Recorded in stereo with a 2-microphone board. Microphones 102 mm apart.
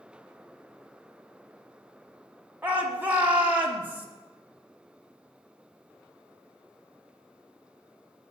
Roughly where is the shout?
Centre.